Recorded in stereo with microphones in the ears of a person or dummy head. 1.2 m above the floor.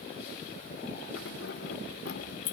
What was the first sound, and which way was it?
Keys jangling, 65° left (ahead or behind).